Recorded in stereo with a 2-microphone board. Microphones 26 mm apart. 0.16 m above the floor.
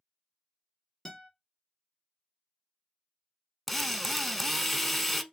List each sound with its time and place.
1.1 s a guitar: 20° left (ahead or behind), 1.6 m
3.7 s a drill: centre (ahead or behind), 0.5 m